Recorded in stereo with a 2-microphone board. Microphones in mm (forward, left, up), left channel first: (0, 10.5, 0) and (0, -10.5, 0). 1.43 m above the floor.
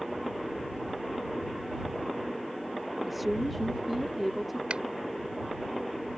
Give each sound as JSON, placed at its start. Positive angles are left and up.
{"t": 3.0, "sound": "a woman speaking", "side_deg": 0}
{"t": 4.7, "sound": "a finger snap", "side_deg": -70}